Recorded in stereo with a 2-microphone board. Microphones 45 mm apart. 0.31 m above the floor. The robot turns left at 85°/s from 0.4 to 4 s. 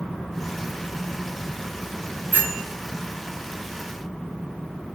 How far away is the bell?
About 1.7 m.